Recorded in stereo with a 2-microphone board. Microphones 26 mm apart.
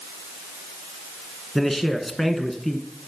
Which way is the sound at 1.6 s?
10° left (ahead or behind).